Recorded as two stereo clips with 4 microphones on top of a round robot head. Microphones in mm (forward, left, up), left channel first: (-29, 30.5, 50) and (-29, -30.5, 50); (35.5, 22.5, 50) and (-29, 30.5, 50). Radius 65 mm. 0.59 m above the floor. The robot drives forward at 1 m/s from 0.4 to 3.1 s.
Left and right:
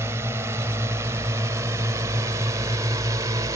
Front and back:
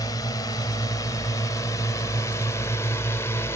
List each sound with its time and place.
0.0 s a drone: 40° right; by 3.6 s 55° right